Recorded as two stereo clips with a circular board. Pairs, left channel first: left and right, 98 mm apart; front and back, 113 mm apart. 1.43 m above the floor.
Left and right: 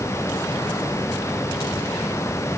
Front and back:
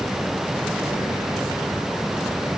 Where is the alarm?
No alarm in this recording.